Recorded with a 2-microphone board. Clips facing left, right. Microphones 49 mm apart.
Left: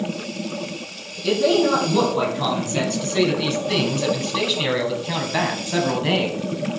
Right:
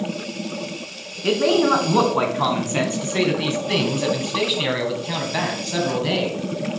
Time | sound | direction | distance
1.2 | a man speaking | 40° right (ahead or behind) | 3 m